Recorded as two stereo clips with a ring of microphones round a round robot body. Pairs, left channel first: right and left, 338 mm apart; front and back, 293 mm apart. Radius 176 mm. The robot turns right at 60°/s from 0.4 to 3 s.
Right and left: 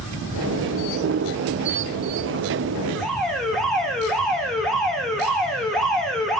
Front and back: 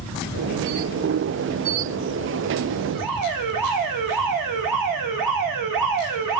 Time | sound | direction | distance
3.0 | an alarm | straight behind | 1.7 m